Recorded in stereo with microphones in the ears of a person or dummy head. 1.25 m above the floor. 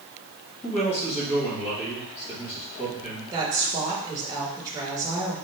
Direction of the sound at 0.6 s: 40° left (ahead or behind).